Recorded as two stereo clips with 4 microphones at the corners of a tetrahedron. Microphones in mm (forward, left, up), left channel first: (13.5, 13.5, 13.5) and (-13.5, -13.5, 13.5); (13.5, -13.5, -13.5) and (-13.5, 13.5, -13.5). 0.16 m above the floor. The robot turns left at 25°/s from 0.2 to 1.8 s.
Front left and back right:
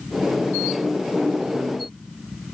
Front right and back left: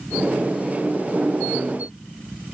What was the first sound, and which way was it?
Only background noise.